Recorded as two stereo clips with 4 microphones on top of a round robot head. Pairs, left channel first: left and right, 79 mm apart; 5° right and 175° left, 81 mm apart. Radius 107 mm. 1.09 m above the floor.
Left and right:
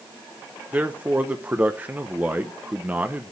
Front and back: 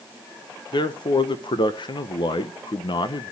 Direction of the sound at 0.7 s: 20° right.